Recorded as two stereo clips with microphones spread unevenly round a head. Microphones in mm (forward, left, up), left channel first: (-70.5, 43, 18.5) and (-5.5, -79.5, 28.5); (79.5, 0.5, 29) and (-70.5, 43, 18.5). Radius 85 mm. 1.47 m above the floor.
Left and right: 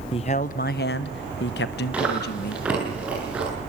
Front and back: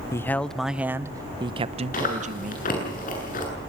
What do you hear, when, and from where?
0.1 s a man speaking: 55° left, 0.9 m; by 2.9 s 130° left, 1.5 m
1.9 s chewing: 20° left, 8.5 m